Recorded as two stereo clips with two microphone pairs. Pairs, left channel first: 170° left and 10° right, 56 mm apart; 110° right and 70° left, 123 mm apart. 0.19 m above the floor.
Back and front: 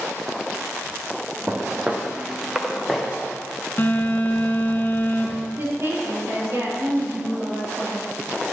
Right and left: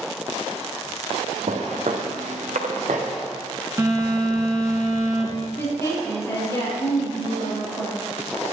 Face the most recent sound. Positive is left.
turn(degrees=-45)